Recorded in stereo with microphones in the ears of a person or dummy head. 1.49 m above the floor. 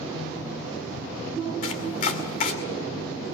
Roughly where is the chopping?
Left.